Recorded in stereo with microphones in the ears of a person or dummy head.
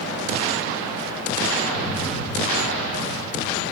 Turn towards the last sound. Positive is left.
turn(degrees=45)  # may be behind; listen again after turning